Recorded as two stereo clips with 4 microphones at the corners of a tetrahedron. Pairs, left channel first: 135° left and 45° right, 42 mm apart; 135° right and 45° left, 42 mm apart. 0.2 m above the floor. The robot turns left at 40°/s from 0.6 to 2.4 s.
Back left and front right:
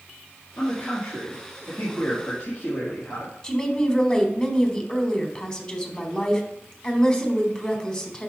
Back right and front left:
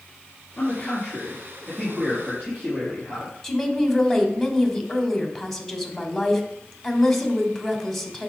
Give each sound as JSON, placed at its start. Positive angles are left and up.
{"t": 0.6, "sound": "a man speaking", "azimuth_deg": 175, "distance_m": 4.0}
{"t": 3.4, "sound": "a woman speaking", "azimuth_deg": 150, "distance_m": 1.3}